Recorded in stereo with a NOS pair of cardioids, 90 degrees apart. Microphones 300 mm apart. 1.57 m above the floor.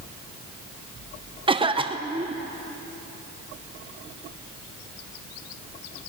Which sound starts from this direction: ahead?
A cough, at 1.5 s.